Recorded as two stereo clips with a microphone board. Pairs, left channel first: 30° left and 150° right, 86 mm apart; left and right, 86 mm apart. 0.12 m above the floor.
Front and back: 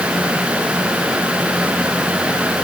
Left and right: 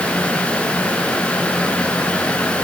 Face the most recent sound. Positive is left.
No sound to turn to.